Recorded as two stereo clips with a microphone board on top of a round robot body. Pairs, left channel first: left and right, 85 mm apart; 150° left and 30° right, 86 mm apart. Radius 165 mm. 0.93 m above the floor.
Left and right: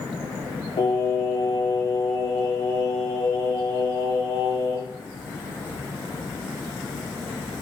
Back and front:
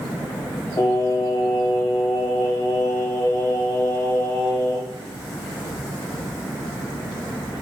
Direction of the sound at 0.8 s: 100° left.